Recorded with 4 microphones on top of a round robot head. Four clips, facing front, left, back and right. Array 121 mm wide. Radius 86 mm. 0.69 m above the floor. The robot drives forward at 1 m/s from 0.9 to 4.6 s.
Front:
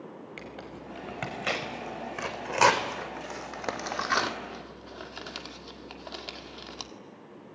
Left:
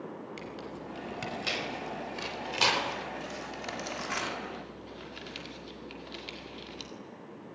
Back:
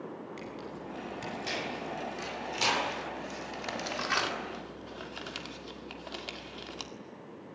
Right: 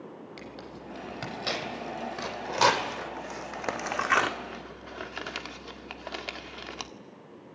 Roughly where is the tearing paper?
Ahead.